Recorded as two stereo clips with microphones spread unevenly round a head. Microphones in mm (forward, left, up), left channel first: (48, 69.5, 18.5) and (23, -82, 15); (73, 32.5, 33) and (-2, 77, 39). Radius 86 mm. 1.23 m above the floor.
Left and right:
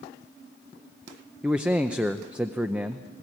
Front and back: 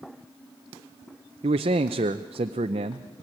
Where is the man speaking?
175° left, 0.6 m.